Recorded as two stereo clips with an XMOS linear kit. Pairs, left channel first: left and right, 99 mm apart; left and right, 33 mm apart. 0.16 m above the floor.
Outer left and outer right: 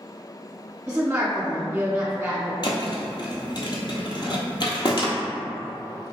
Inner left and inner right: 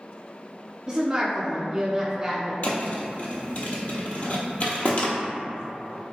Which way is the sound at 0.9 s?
20° right (ahead or behind).